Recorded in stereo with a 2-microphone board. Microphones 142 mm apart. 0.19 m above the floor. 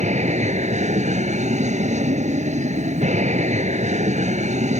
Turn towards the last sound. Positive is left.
turn(degrees=-55)  # may be behind; listen again after turning